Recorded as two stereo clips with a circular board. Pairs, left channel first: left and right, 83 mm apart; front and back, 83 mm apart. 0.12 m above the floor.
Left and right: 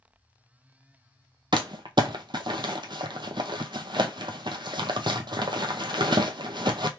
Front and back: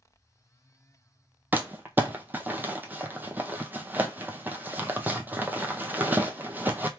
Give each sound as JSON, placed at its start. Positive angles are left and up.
{"t": 1.5, "sound": "crumpling", "azimuth_deg": -110, "distance_m": 0.6}